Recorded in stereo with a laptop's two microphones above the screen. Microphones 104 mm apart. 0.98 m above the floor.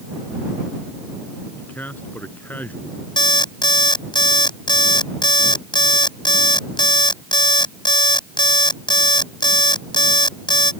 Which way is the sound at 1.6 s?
15° left (ahead or behind).